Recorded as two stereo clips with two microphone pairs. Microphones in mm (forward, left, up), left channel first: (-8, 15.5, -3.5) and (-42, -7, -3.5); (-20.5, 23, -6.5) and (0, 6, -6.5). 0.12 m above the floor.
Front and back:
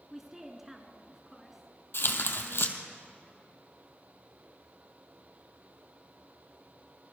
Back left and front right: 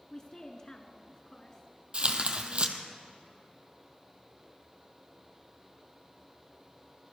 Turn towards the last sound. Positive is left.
turn(degrees=10)